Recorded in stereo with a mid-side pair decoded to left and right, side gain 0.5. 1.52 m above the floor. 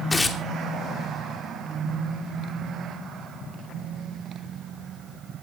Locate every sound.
0.1 s tearing paper: 25° left, 2.5 m